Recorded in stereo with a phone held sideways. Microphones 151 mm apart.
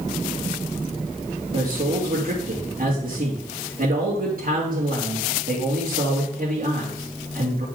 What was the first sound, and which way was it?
A man speaking, 70° right (ahead or behind).